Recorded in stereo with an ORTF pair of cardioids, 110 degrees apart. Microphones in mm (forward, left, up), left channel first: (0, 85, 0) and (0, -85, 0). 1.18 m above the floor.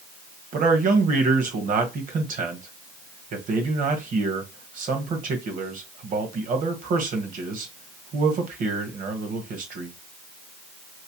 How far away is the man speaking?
About 1.3 m.